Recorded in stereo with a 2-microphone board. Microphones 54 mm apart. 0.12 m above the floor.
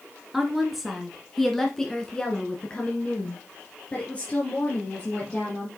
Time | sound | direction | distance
0.3 | a woman speaking | 5° right (ahead or behind) | 1.6 m